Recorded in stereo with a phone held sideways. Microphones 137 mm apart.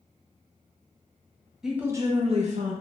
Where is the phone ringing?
I don't hear a phone ringing.